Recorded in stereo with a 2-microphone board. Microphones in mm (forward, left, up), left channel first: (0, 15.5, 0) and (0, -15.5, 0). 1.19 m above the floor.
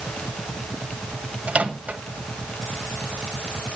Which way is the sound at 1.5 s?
50° right (ahead or behind).